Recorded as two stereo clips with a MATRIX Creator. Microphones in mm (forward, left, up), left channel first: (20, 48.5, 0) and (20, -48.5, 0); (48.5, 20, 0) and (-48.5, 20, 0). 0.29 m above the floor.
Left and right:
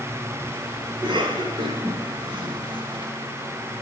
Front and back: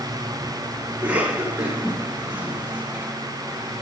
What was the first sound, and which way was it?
A cough, 110° right.